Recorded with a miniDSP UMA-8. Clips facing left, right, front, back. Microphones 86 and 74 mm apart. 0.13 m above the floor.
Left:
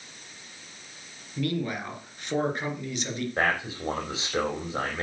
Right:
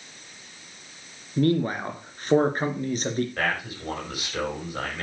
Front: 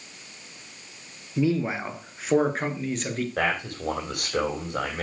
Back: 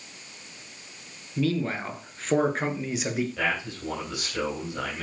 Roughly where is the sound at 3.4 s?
Ahead left.